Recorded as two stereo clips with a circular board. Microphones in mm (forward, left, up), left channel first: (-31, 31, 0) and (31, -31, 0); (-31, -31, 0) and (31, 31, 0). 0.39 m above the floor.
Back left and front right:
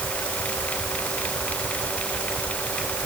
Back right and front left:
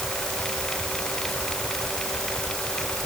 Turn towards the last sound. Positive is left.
No sound to turn to.